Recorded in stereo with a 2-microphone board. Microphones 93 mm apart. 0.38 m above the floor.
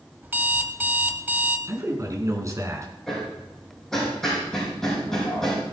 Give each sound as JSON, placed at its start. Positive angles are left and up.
{"t": 0.2, "sound": "an alarm clock", "side_deg": -25, "distance_m": 1.0}
{"t": 1.7, "sound": "a man speaking", "side_deg": -35, "distance_m": 3.0}
{"t": 3.1, "sound": "hammering", "side_deg": 5, "distance_m": 6.0}